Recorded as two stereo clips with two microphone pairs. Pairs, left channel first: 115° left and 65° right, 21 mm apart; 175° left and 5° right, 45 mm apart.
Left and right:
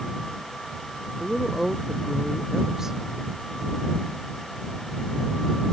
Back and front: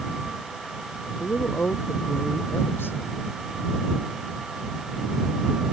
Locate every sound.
1.2 s a woman speaking: 140° right